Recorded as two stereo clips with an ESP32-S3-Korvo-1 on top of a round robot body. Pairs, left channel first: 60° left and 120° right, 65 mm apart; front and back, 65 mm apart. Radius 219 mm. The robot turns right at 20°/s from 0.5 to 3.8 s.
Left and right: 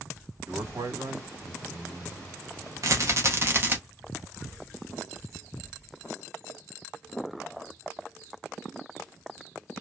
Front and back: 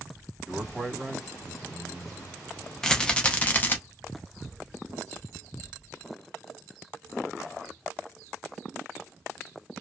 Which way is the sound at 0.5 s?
110° right.